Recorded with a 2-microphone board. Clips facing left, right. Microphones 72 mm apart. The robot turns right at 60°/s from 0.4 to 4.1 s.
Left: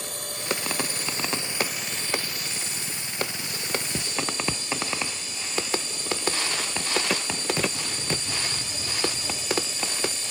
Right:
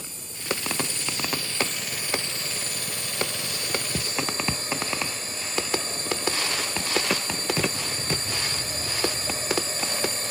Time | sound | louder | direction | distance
0.0 | a drone | left 6 dB | 95° left | ?